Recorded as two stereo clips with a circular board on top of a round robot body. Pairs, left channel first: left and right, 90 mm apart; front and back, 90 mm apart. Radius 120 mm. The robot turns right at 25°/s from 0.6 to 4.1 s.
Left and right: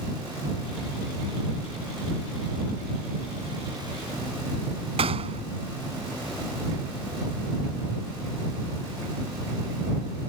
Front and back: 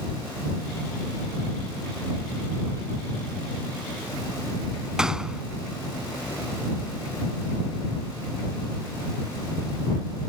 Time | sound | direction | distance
5.0 | a gunshot | 95° right | ?